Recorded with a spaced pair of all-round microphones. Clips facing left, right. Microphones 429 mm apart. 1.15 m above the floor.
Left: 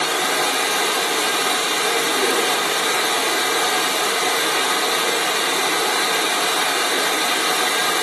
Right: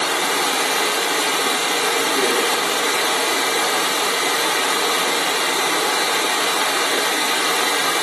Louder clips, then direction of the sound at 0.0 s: Even; 15° right (ahead or behind).